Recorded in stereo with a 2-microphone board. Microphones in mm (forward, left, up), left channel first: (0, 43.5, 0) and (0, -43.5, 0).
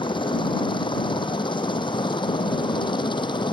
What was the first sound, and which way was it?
A helicopter, 65° left (ahead or behind).